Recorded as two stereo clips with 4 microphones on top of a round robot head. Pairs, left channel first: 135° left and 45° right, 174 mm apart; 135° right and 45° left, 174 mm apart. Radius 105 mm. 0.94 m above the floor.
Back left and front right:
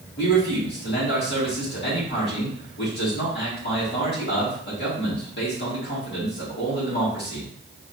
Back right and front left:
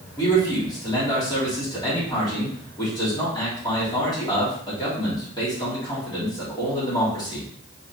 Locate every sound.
0.2 s a man speaking: 160° left, 2.5 m